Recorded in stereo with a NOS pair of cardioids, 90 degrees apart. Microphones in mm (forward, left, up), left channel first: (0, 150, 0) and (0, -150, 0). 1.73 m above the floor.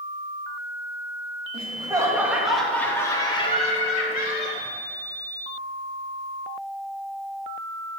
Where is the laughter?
20° right, 3 m; by 4.6 s 35° left, 3.5 m.